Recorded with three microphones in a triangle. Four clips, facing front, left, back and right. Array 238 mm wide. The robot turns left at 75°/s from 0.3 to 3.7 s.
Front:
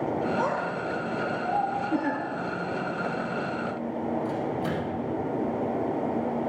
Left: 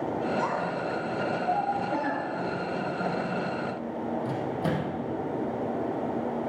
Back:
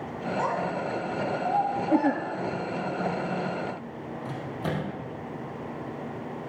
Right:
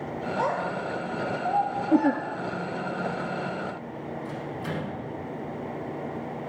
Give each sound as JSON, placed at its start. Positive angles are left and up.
{"t": 0.4, "sound": "a child speaking", "azimuth_deg": -55, "distance_m": 4.5}
{"t": 1.9, "sound": "a giggle", "azimuth_deg": -110, "distance_m": 0.5}
{"t": 4.2, "sound": "a microwave", "azimuth_deg": 125, "distance_m": 4.0}